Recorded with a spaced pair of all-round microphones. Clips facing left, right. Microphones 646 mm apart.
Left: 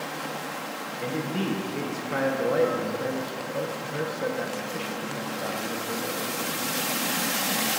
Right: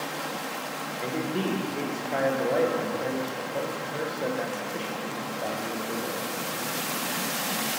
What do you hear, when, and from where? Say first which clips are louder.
1.0 s a man speaking: even; 40° left (ahead or behind), 0.8 m